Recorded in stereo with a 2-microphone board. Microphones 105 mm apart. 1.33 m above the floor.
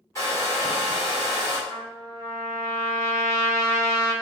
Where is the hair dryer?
30° left (ahead or behind), 1.1 m.